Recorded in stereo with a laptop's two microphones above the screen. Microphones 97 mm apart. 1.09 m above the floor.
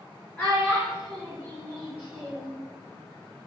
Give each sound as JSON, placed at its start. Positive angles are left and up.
{"t": 0.4, "sound": "a child speaking", "side_deg": 15, "distance_m": 1.3}